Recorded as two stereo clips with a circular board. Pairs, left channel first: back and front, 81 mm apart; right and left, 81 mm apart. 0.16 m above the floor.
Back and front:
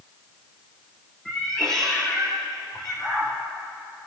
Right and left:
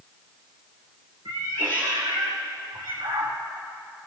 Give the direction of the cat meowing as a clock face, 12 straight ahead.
9 o'clock.